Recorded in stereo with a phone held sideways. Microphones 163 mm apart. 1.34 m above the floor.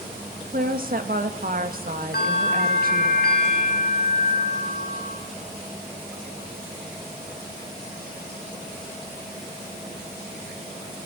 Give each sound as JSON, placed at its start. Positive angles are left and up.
{"t": 0.5, "sound": "a woman speaking", "side_deg": -65, "distance_m": 1.7}
{"t": 2.1, "sound": "a bell", "side_deg": 80, "distance_m": 5.0}